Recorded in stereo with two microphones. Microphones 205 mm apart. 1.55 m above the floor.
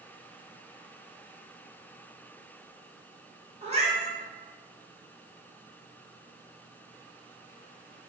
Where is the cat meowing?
30° right (ahead or behind), 0.8 m.